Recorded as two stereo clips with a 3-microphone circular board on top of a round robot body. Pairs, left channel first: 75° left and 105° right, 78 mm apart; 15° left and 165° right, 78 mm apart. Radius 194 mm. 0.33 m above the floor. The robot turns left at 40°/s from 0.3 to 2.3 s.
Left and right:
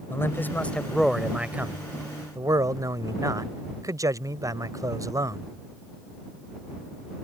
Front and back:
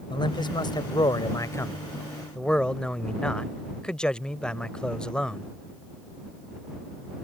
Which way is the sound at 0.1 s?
15° left.